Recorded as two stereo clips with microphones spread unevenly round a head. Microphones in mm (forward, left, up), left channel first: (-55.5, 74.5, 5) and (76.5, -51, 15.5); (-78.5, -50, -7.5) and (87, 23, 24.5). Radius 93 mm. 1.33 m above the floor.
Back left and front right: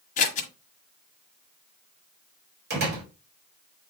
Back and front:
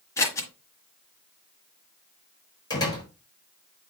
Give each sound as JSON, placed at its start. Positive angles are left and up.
{"t": 0.2, "sound": "scissors", "azimuth_deg": 120, "distance_m": 1.3}
{"t": 2.7, "sound": "a door slam", "azimuth_deg": -85, "distance_m": 4.0}